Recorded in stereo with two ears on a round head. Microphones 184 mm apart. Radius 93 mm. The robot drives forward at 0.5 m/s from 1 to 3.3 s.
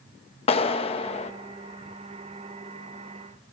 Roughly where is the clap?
Left.